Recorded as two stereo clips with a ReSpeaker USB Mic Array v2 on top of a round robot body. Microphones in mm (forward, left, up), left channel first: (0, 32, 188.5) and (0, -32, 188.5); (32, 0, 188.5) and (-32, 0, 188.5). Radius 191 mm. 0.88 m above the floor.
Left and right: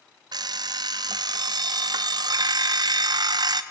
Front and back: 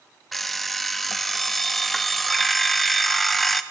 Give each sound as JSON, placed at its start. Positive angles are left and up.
{"t": 0.3, "sound": "an alarm clock", "azimuth_deg": -85, "distance_m": 0.5}